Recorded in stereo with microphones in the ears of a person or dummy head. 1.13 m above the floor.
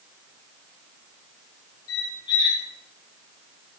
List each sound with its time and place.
1.9 s a squeak: 25° left (ahead or behind), 3 m